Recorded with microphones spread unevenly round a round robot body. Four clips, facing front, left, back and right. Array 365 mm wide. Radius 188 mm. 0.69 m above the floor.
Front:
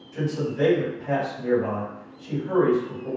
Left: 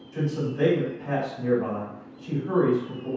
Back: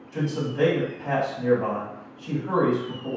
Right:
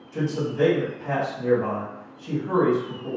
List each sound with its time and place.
0.1 s a man speaking: 170° right, 1.6 m